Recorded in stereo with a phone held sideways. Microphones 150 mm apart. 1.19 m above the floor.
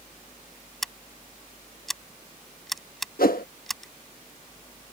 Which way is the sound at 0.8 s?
Centre (ahead or behind).